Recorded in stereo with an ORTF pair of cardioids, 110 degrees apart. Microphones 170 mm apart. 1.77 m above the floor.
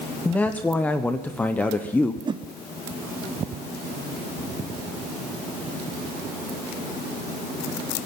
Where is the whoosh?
30° right, 0.8 m.